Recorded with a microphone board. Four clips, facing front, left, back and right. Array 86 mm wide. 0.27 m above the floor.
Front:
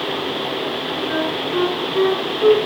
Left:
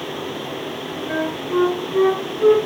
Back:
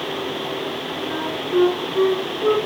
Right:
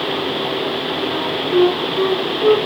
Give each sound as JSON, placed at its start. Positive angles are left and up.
{"t": 1.1, "sound": "a flute", "azimuth_deg": 65, "distance_m": 7.5}